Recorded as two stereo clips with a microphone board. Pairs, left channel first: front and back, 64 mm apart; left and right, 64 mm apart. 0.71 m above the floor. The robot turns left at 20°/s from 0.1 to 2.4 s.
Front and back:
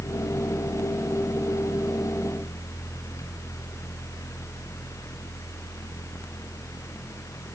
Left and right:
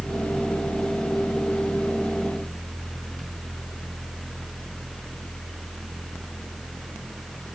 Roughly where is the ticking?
No ticking in this recording.